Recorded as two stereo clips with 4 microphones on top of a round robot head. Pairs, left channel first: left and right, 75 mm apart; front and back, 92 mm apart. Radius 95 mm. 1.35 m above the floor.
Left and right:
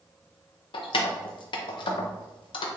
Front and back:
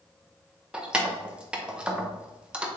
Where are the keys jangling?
100° left, 0.6 m.